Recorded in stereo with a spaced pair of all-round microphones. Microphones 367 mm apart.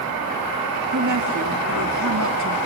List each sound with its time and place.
0.9 s a woman speaking: 50° right (ahead or behind), 2 m